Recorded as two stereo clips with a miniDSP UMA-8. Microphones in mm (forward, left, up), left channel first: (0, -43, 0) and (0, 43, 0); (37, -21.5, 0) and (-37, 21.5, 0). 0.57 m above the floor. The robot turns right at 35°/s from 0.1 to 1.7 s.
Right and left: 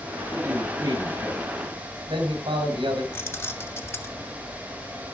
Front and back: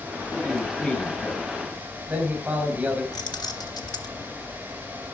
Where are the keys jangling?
35° right, 1.1 m.